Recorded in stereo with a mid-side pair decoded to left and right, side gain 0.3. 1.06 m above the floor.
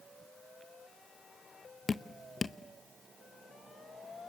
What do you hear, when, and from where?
1.9 s dripping: 50° left, 0.7 m